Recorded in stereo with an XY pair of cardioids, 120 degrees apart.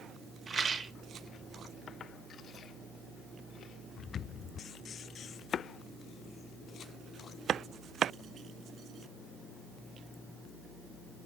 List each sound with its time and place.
0.5 s a rattle: 35° right, 0.8 m